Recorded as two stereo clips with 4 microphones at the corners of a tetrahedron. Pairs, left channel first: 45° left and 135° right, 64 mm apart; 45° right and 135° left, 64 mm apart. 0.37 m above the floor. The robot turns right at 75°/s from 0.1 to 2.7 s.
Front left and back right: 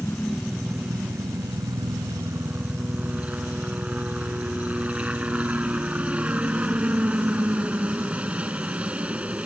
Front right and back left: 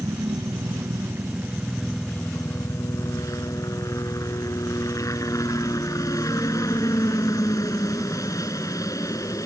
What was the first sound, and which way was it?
A helicopter, 100° left.